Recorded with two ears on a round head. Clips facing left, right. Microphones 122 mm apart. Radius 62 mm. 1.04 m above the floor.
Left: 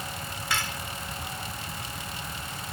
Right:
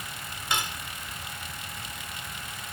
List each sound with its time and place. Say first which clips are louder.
0.5 s cutlery clinking: right 1 dB; 20° right (ahead or behind)